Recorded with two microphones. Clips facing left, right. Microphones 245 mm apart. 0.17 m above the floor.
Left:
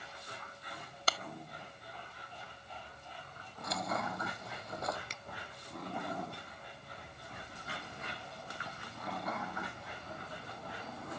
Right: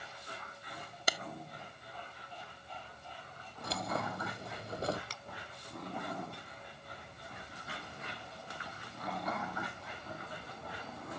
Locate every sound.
1.1 s a clap: 15° right (ahead or behind)
3.6 s keys jangling: 30° right (ahead or behind)
5.1 s a finger snap: 20° left (ahead or behind)